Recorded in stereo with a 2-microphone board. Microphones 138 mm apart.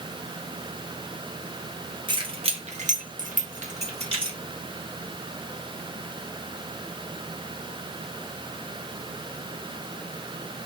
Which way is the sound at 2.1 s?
35° right (ahead or behind).